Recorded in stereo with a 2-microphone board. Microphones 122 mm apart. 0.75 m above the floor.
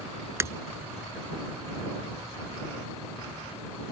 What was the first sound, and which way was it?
Breaking glass, 25° right (ahead or behind).